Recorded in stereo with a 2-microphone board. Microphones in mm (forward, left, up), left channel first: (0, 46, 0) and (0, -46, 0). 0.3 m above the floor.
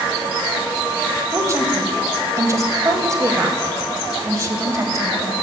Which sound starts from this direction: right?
A woman speaking, at 1.3 s.